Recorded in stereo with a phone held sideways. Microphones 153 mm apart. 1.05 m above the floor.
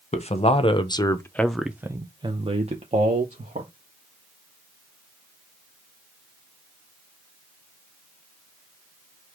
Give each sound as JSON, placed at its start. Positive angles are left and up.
{"t": 0.1, "sound": "a man speaking", "side_deg": 45, "distance_m": 1.0}